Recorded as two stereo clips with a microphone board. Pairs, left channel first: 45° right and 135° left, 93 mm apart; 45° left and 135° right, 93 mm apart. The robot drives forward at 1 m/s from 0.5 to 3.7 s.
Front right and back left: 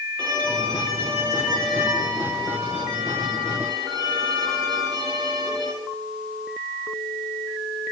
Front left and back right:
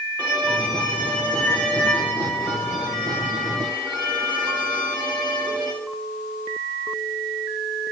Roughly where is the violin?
Left.